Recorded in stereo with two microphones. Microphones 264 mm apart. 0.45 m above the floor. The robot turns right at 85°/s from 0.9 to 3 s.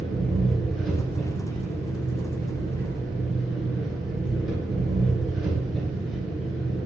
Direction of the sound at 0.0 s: Straight ahead.